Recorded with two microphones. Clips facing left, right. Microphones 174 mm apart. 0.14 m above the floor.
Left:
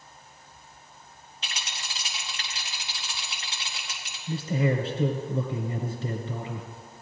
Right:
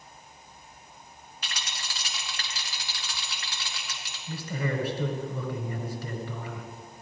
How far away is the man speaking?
About 1.4 m.